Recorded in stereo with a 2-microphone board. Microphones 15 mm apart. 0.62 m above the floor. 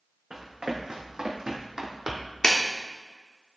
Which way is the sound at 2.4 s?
45° left (ahead or behind).